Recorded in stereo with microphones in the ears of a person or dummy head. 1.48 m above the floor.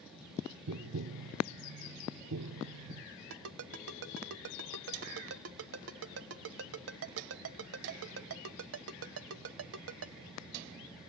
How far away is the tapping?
About 1.1 m.